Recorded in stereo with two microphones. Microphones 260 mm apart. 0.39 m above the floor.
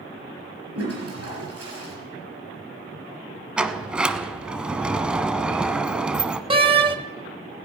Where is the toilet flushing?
65° right (ahead or behind), 4.5 m.